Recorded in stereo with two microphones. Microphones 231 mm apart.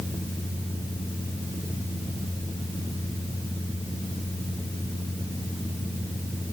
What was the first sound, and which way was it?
Only background noise.